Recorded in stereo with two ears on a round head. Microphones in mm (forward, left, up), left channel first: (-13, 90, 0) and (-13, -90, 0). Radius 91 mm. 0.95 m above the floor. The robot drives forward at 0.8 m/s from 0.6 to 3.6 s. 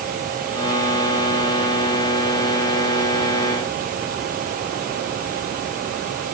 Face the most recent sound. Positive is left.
No sound to turn to.